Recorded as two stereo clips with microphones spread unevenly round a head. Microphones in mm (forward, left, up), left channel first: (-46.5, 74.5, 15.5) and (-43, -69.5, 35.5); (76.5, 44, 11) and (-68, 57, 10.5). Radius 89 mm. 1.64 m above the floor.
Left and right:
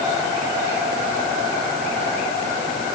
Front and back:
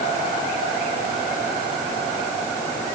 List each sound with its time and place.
Only background noise.